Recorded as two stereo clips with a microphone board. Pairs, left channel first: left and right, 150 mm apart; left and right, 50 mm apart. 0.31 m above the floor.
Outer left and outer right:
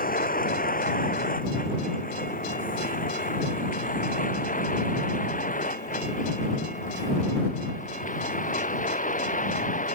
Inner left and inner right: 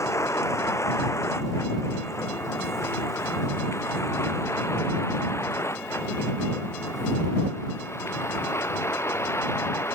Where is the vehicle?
70° left (ahead or behind); by 9.9 s 60° left (ahead or behind).